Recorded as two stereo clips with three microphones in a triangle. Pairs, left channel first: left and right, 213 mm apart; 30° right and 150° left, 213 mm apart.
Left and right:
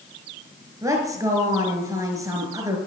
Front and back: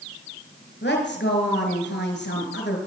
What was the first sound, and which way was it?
A woman speaking, 15° right.